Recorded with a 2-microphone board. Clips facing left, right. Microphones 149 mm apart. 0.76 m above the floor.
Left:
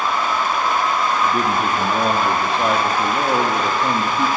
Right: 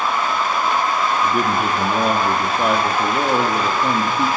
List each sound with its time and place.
1.2 s a man speaking: 5° right (ahead or behind), 1.6 m